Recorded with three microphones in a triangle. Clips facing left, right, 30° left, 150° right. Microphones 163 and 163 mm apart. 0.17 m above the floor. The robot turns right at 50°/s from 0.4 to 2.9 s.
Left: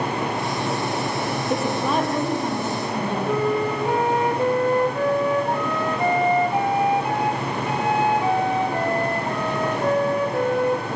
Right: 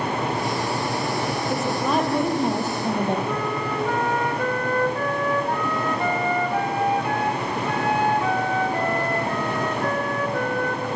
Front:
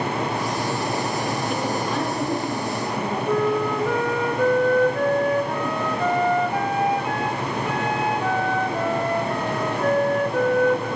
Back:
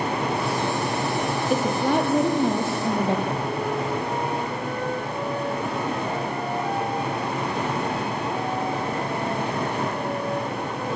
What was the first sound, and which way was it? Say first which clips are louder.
A woman speaking: left 1 dB, back 3 dB; 160° left.